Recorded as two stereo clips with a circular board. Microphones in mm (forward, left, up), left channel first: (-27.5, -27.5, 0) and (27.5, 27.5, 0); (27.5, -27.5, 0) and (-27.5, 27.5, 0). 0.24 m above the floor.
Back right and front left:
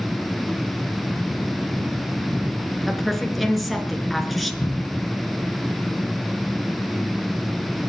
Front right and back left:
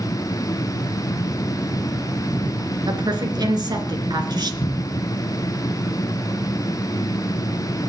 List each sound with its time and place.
2.9 s a woman speaking: 135° left, 3.5 m
4.6 s a cupboard door: 70° right, 2 m